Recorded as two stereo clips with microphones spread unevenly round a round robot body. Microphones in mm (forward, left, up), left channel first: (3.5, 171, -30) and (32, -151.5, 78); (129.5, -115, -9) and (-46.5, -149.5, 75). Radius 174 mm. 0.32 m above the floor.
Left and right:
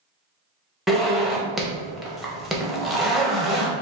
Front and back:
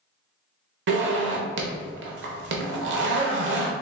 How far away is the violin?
I don't hear a violin.